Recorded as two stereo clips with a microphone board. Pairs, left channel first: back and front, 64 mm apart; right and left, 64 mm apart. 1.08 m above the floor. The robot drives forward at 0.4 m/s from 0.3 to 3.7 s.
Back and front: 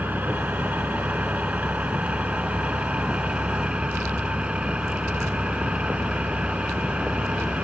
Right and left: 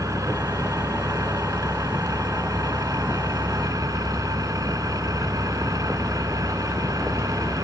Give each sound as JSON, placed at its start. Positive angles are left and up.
{"t": 0.0, "sound": "an engine running", "azimuth_deg": 60}